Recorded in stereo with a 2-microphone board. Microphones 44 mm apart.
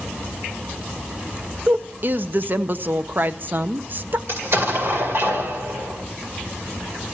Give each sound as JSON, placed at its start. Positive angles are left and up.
{"t": 1.7, "sound": "a woman speaking", "side_deg": -45, "distance_m": 0.5}
{"t": 4.3, "sound": "an explosion", "side_deg": -60, "distance_m": 2.0}